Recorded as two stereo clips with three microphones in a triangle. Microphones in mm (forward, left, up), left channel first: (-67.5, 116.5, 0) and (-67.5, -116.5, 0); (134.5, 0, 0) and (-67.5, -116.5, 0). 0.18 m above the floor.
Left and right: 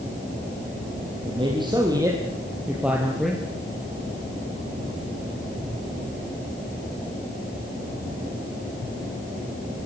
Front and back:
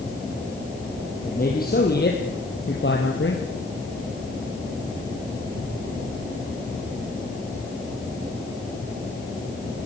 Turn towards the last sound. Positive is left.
turn(degrees=5)